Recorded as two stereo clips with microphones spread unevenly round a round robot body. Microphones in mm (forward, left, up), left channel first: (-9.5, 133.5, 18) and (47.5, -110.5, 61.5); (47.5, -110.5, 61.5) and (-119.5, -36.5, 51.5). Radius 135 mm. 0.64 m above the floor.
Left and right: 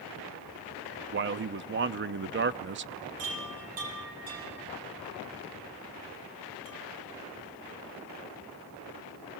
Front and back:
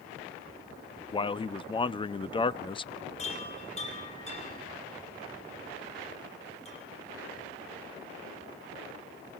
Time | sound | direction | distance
1.1 | a man speaking | 70° right | 0.6 m
3.2 | a chime | 80° right | 6 m